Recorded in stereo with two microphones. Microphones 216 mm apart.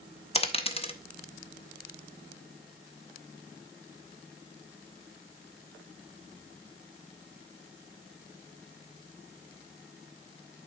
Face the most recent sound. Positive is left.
turn(degrees=25)  # may be behind; listen again after turning